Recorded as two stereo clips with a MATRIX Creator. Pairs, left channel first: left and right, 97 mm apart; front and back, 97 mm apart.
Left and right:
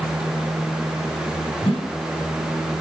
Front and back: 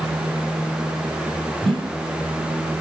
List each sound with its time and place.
1.6 s a whoosh: 90° left, 4 m